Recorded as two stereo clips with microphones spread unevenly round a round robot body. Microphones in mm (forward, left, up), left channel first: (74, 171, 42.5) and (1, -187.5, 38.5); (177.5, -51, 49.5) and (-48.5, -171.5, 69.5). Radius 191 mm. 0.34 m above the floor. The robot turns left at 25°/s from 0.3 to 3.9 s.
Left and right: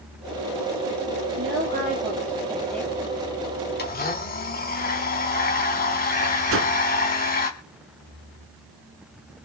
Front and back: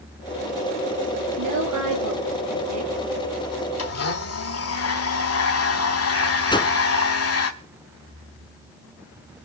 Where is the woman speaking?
160° right, 7.5 m; by 2.9 s 160° left, 7.5 m.